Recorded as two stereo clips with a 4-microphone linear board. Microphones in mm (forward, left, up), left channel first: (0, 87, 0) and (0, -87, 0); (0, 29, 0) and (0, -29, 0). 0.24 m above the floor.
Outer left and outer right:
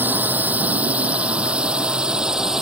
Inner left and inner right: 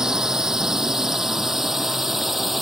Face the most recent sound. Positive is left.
turn(degrees=-5)  # may be behind; listen again after turning